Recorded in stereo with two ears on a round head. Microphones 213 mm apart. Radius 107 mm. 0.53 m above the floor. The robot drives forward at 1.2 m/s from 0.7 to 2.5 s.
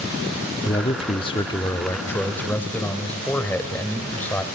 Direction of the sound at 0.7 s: 20° left (ahead or behind).